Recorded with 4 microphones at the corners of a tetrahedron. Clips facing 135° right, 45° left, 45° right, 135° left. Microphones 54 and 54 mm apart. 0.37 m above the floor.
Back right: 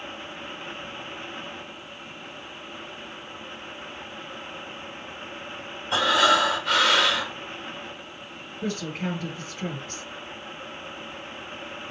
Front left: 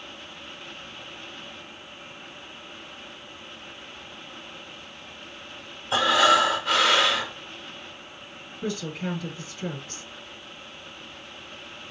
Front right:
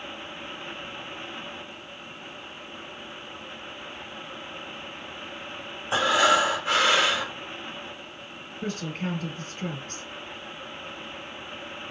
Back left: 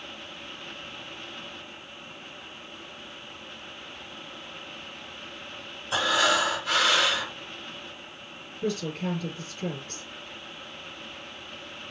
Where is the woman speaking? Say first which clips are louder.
Back right 1 dB, back left 2 dB; 90° right, 3 m.